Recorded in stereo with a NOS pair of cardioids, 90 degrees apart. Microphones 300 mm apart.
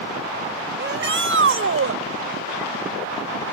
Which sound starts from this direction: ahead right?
A shout, at 0.8 s.